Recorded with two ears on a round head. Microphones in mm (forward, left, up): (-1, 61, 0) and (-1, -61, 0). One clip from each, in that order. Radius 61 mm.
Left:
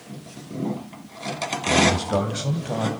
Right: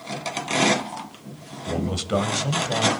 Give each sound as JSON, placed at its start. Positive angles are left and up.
{"t": 1.7, "sound": "a man speaking", "side_deg": -55, "distance_m": 3.0}